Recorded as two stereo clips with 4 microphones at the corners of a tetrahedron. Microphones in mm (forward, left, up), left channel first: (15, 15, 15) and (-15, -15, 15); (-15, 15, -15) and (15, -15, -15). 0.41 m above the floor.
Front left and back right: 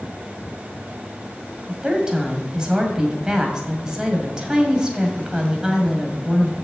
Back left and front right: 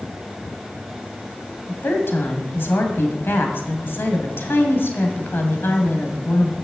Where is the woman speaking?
155° left, 2 m.